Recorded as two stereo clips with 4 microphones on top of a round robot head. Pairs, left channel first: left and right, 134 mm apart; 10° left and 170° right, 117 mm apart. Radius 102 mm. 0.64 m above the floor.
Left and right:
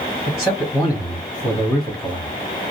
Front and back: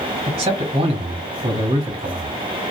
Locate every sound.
0.3 s a man speaking: 175° left, 1.3 m